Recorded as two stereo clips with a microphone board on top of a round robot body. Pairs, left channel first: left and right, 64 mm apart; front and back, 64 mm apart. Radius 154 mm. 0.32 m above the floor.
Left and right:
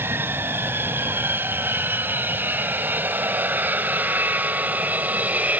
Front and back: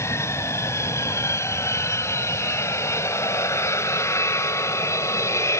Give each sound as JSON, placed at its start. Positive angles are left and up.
{"t": 0.0, "sound": "an aircraft", "azimuth_deg": -40}